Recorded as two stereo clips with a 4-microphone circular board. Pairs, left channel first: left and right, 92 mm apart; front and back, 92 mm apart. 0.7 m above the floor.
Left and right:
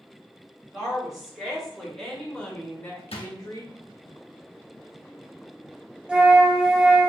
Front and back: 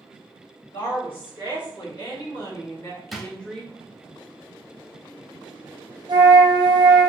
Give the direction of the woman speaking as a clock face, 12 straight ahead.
12 o'clock.